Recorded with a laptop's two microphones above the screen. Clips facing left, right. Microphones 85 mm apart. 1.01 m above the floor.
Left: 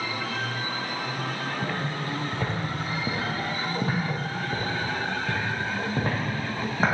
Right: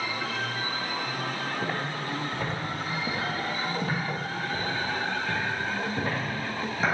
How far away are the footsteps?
About 1.5 m.